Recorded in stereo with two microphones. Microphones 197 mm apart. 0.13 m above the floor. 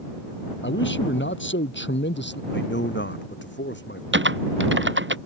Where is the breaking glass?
No breaking glass in this recording.